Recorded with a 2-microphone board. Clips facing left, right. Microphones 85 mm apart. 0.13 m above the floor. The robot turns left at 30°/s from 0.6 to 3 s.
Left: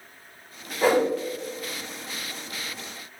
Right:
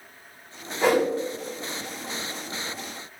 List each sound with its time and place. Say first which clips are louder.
0.8 s a whoosh: even; 5° left (ahead or behind), 2.5 m; by 1.1 s 15° left (ahead or behind), 2.5 m